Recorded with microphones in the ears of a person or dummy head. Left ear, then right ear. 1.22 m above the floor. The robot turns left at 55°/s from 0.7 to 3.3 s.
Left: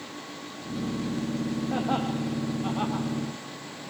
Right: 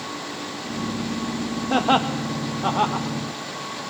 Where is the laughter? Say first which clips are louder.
Right 10 dB; 85° right, 1.0 m; by 3.1 s 15° right (ahead or behind), 1.0 m.